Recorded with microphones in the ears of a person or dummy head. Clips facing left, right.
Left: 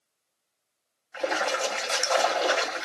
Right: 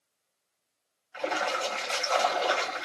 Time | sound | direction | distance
1.1 | a splash | 60° left (ahead or behind) | 2 m